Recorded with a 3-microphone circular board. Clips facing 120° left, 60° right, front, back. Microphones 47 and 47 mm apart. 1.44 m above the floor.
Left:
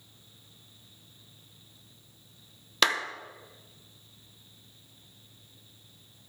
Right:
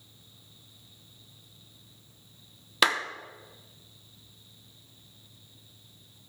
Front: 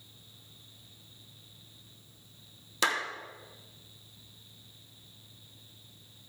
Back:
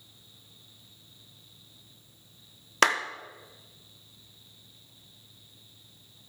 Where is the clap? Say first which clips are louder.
Right 1 dB, back 6 dB; 145° right, 0.9 m.